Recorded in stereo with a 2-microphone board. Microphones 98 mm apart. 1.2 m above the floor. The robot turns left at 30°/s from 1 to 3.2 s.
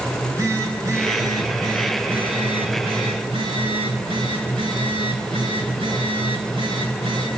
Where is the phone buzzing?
35° right, 5.5 m; by 7.3 s 100° right, 5.5 m.